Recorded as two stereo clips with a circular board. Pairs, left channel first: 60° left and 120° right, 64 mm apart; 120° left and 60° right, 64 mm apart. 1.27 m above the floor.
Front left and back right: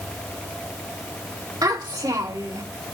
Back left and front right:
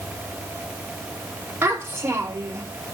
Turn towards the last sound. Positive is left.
turn(degrees=-110)